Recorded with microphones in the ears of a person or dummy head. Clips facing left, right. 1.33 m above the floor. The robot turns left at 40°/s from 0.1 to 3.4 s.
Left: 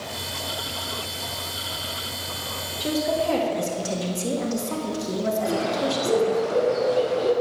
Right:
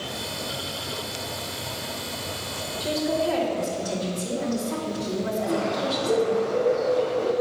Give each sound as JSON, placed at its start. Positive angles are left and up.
{"t": 2.8, "sound": "a woman speaking", "side_deg": 35, "distance_m": 2.0}
{"t": 5.5, "sound": "a bird", "side_deg": 60, "distance_m": 4.0}